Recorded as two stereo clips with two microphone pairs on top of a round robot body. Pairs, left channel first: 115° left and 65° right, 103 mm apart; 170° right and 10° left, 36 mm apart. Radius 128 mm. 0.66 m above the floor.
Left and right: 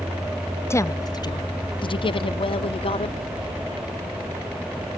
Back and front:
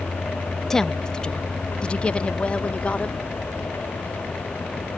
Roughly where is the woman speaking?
Behind left.